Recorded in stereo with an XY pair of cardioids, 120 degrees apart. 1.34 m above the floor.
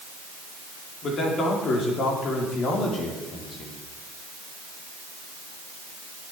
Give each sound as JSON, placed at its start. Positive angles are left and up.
{"t": 1.0, "sound": "a man speaking", "azimuth_deg": 50, "distance_m": 4.5}